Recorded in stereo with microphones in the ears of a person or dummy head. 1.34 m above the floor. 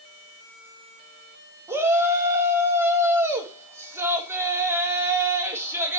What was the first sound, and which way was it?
A shout, 10° right (ahead or behind).